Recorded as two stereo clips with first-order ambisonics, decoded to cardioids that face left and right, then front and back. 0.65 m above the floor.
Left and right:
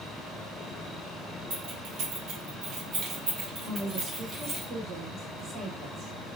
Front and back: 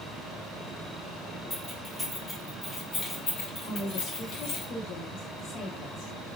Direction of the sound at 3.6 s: 35° right.